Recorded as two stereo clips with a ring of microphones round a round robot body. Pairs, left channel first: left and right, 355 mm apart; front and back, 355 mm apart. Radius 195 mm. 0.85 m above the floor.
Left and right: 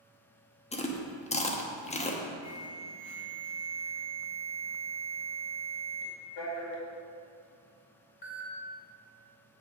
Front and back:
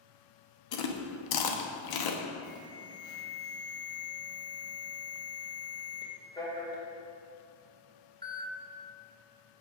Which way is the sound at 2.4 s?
80° left.